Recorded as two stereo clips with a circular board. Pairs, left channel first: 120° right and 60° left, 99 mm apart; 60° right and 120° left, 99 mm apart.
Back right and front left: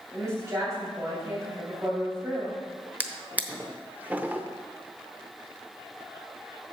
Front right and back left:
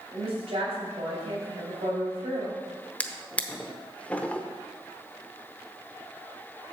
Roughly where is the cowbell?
I don't hear a cowbell.